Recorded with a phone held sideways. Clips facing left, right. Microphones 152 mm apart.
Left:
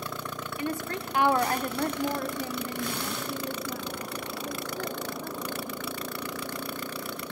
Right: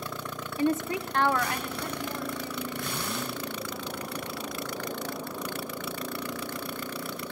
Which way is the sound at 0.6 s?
30° right (ahead or behind).